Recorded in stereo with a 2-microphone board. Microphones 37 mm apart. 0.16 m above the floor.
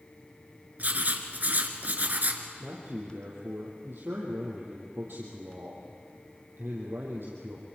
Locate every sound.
0.8 s writing: 50° right (ahead or behind), 2.0 m
2.6 s a man speaking: 70° right (ahead or behind), 4 m